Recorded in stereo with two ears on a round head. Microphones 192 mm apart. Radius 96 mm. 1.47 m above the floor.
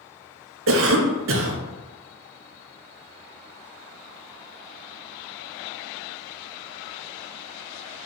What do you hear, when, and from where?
0.7 s a cough: 65° right (ahead or behind), 0.8 m